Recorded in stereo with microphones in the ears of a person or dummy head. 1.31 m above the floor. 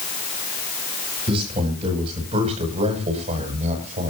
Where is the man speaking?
30° right (ahead or behind), 8 m; by 4.1 s 40° right (ahead or behind), 6.5 m.